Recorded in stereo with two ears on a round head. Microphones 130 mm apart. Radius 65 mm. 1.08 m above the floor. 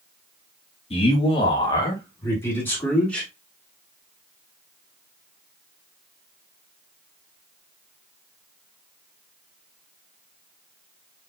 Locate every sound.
0.9 s a man speaking: 40° left (ahead or behind), 2.0 m; by 3.3 s 5° left (ahead or behind), 2.5 m